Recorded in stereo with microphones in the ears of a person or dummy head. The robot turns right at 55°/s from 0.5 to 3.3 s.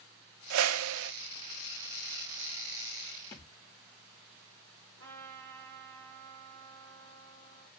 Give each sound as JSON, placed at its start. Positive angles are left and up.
{"t": 0.5, "sound": "a whoosh", "azimuth_deg": -100, "distance_m": 0.5}
{"t": 3.3, "sound": "a thud", "side_deg": 15, "distance_m": 1.1}
{"t": 5.0, "sound": "a trumpet", "side_deg": -70, "distance_m": 4.0}